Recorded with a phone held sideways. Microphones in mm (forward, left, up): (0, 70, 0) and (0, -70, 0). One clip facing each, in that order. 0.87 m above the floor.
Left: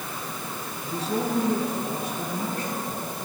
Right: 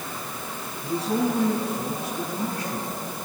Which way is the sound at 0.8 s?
70° right (ahead or behind).